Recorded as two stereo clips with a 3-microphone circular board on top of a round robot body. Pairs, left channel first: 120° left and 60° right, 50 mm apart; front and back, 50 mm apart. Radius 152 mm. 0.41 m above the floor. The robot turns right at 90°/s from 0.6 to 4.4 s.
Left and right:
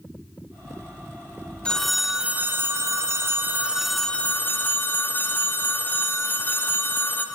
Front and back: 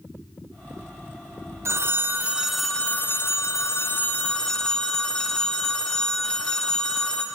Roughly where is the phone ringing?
Behind.